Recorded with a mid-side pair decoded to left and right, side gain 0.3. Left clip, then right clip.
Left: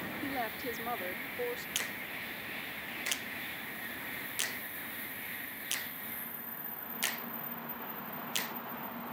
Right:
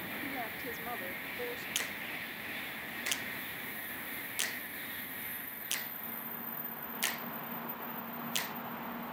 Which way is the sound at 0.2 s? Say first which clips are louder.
Left 5 dB; 55° left.